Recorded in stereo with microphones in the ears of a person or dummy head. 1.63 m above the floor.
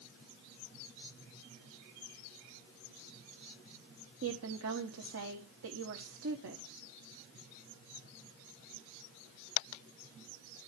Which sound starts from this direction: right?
A woman speaking, at 4.2 s.